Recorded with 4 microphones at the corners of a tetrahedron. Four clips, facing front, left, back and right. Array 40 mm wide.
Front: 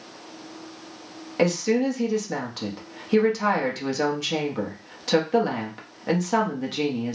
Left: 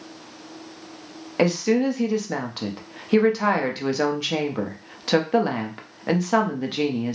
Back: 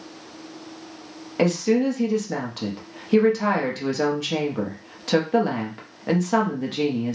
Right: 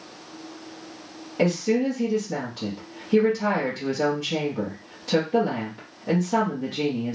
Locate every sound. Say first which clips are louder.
1.4 s a woman speaking: left 2 dB, back 1 dB; 100° left, 0.7 m